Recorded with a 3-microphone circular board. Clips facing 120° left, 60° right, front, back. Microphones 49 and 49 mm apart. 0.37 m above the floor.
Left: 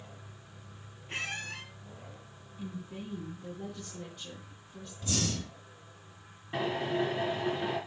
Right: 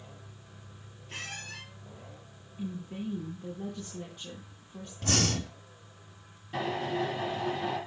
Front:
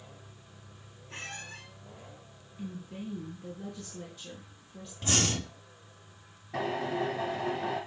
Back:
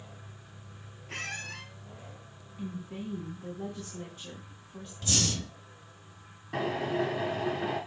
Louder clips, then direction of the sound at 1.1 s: Left 4 dB, back 4 dB; 175° left.